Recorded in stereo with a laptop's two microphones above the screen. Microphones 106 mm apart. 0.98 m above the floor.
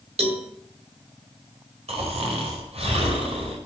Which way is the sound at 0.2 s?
75° right (ahead or behind).